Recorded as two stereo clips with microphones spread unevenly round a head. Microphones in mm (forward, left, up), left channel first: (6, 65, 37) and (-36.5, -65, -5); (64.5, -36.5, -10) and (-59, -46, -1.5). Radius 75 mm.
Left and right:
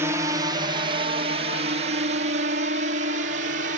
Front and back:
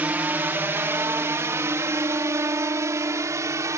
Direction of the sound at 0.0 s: 110° right.